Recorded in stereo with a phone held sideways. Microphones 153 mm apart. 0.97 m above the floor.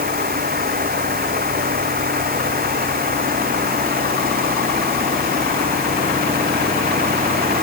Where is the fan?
80° right.